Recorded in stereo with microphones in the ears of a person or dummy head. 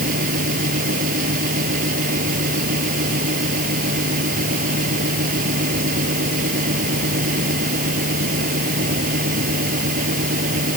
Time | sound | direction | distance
0.0 | a fan | 50° right (ahead or behind) | ?